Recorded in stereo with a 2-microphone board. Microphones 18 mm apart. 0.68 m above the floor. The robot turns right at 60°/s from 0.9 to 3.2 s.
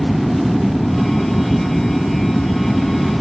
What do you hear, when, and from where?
0.0 s an aircraft: straight ahead; by 3.2 s 135° left